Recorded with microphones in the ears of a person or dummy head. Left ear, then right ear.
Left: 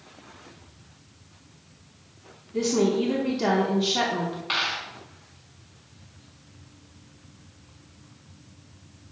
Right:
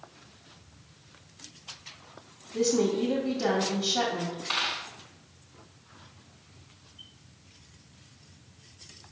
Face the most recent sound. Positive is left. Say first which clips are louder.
# left 3 dB
turn(degrees=15)  # may be behind; listen again after turning